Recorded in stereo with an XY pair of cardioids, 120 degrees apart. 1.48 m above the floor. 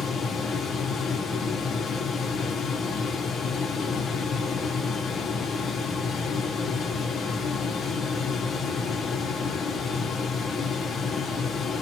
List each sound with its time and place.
0.0 s a fan: 35° left, 0.9 m